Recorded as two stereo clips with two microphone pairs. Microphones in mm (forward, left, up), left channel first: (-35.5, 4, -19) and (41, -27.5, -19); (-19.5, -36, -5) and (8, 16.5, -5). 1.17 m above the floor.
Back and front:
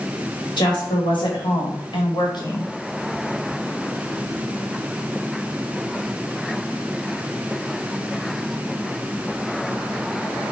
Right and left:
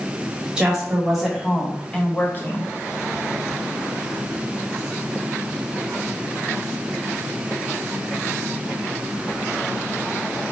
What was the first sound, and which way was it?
A woman speaking, 140° left.